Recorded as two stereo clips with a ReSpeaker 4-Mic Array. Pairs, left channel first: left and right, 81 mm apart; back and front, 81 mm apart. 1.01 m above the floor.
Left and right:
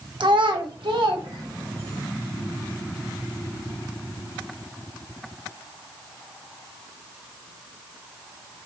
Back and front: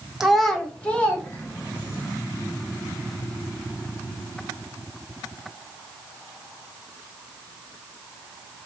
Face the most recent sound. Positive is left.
turn(degrees=-115)